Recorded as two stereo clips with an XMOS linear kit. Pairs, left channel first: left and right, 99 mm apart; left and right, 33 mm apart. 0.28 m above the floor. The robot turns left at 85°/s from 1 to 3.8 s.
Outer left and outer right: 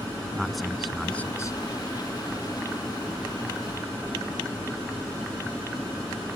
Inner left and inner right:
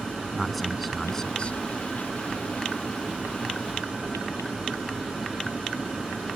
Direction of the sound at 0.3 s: Straight behind.